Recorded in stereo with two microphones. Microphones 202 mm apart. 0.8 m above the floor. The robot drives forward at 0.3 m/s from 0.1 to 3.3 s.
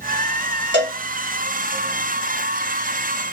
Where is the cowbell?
65° right (ahead or behind), 1.6 m.